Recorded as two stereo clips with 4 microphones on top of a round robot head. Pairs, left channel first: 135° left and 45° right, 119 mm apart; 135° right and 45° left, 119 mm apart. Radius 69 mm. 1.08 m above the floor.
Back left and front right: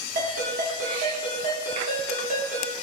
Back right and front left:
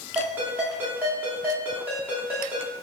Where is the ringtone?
30° right, 1.9 m.